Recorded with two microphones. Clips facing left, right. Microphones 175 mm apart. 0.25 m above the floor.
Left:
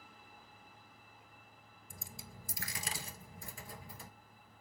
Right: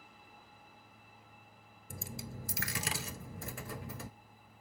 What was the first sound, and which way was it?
A dropped coin, 70° right (ahead or behind).